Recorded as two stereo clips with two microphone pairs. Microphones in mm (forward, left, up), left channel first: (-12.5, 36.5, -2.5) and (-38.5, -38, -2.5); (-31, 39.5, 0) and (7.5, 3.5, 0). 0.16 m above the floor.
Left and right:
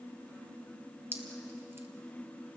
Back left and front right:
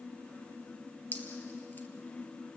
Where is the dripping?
170° right, 2.5 m.